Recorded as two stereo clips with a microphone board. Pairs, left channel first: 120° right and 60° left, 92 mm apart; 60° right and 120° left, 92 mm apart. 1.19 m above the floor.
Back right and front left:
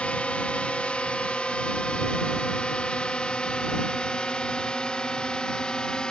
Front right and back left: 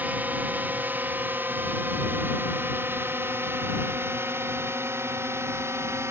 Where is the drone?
175° left; by 6.1 s 165° left.